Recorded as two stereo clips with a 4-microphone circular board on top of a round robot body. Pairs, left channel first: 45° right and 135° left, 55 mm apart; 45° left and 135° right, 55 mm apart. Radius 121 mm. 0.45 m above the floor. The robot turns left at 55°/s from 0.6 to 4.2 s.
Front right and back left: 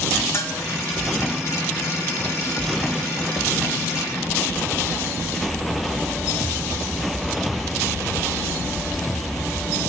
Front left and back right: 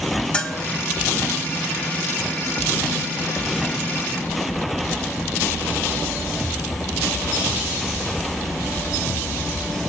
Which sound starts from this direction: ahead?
A bell, at 0.3 s.